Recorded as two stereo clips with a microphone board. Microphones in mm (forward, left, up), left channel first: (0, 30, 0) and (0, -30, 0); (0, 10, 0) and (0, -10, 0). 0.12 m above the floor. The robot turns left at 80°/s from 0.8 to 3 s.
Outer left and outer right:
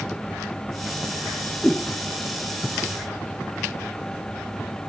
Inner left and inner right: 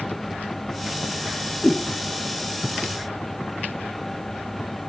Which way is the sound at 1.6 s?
15° left (ahead or behind).